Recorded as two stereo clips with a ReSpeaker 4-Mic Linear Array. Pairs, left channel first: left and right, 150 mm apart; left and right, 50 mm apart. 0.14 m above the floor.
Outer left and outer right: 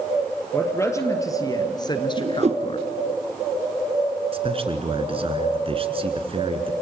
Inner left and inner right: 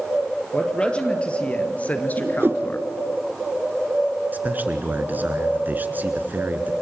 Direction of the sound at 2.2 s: 50° right (ahead or behind).